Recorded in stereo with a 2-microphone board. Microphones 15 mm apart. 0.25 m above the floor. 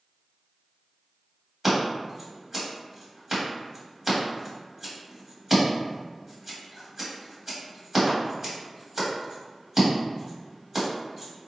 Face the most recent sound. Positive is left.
turn(degrees=-20)  # may be behind; listen again after turning